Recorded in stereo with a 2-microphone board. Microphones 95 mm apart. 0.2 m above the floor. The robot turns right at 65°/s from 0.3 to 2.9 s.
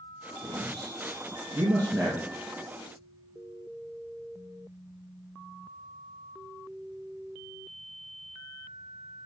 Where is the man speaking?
55° right (ahead or behind), 3 m; by 2.3 s centre (ahead or behind), 3 m.